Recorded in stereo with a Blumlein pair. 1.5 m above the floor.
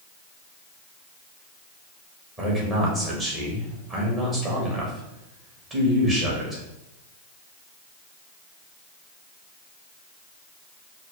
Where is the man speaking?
20° right, 1.8 m.